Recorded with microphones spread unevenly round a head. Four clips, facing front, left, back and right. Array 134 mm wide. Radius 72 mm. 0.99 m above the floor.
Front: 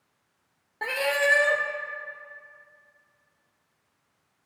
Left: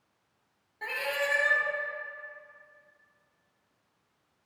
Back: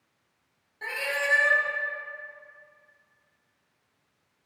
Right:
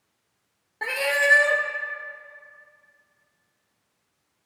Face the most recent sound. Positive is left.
turn(degrees=-40)